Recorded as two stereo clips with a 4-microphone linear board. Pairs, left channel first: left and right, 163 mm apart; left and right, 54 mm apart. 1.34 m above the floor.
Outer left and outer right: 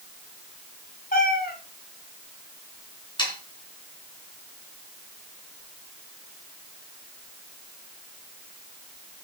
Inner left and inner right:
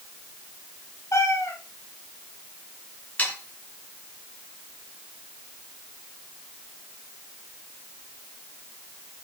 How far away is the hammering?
No hammering in this recording.